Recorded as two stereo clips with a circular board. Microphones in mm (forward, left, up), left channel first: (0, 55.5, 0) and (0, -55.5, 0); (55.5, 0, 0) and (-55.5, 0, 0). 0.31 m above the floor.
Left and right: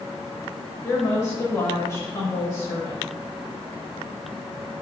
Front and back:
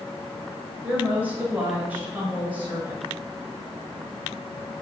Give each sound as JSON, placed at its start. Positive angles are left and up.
{"t": 0.8, "sound": "a woman speaking", "azimuth_deg": 125, "distance_m": 1.0}